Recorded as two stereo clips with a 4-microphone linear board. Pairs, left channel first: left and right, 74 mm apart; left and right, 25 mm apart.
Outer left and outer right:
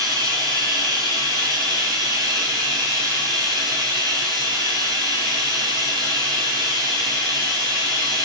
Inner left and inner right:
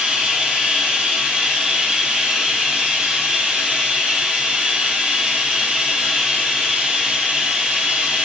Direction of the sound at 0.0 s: 75° right (ahead or behind).